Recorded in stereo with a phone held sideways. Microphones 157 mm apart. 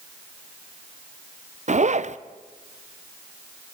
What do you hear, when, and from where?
1.7 s a zipper: 45° right (ahead or behind), 0.6 m